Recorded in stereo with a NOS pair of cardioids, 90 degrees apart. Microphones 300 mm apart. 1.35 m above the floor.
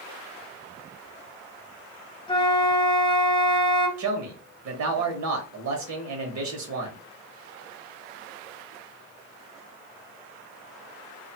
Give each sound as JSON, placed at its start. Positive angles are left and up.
{"t": 2.3, "sound": "a flute", "azimuth_deg": 15, "distance_m": 1.1}
{"t": 4.0, "sound": "a man speaking", "azimuth_deg": -70, "distance_m": 1.1}